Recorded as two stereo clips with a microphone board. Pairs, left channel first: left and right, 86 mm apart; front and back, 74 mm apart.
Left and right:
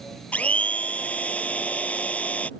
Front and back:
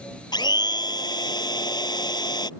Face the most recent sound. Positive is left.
turn(degrees=15)